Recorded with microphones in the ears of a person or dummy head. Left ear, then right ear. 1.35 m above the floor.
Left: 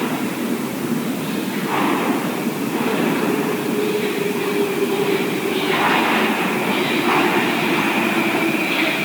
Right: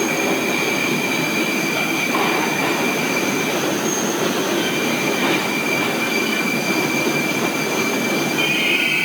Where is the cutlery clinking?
I don't hear cutlery clinking.